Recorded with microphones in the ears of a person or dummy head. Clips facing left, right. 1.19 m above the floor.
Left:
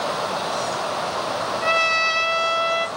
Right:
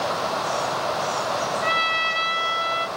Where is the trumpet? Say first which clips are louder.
Left 4 dB; 65° left (ahead or behind), 0.8 m.